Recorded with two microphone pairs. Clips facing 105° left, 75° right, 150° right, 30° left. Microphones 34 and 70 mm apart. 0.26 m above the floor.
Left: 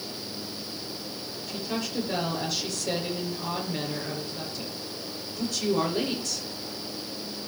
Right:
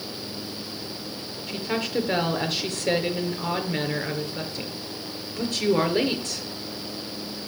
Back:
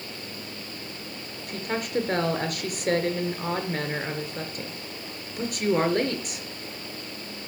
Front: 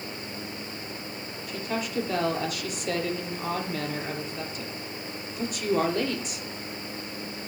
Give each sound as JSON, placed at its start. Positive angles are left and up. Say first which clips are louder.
{"t": 1.5, "sound": "a woman speaking", "louder": "right 5 dB, back 2 dB", "azimuth_deg": -115, "distance_m": 4.5}